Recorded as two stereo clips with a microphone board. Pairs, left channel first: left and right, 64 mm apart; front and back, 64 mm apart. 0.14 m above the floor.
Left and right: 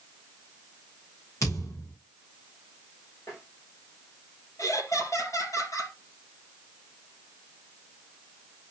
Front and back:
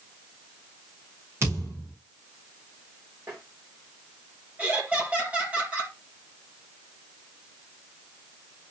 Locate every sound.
1.4 s a thud: 130° left, 5.5 m
3.3 s tapping: 125° left, 7 m
4.6 s laughter: 110° left, 4 m